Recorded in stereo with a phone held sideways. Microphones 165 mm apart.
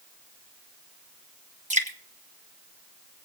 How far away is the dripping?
About 1.6 m.